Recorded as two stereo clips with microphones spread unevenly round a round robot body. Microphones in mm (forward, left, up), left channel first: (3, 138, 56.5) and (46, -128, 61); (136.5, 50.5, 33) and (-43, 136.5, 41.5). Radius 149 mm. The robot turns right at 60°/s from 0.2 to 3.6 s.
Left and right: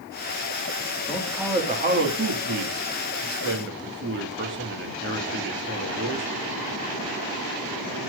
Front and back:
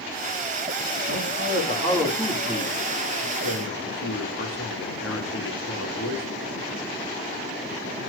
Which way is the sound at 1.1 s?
175° left.